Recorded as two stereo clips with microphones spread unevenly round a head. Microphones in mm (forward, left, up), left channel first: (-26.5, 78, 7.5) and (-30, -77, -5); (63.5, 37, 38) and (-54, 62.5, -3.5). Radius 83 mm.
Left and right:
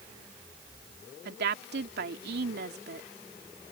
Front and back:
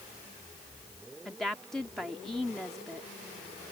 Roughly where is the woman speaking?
Right.